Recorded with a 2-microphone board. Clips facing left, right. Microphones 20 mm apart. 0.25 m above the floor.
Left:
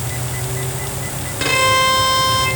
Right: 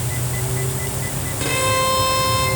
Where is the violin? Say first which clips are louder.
Left 5 dB; 35° left (ahead or behind), 4 m.